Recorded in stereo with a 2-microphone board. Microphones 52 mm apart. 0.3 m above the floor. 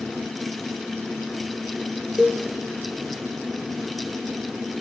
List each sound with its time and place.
2.2 s a cowbell: 10° right (ahead or behind), 0.7 m